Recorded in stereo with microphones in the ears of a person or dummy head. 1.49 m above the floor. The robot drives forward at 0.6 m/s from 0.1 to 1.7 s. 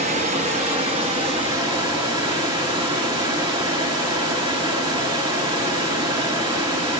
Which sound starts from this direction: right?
Running water, at 0.0 s.